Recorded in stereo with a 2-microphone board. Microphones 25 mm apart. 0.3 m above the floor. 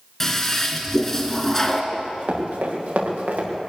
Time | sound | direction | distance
0.2 | a toilet flushing | 10° left (ahead or behind) | 2 m
1.9 | running footsteps | 85° right | 7.5 m